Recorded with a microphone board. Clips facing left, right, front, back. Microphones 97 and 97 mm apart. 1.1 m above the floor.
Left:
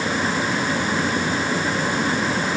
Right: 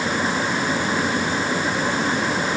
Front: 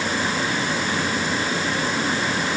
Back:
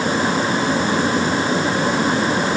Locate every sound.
Only background noise.